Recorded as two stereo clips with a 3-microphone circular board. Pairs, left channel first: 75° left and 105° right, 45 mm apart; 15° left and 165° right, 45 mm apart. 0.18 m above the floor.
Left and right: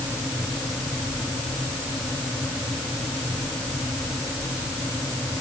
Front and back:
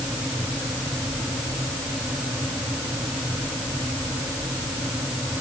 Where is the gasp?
I don't hear a gasp.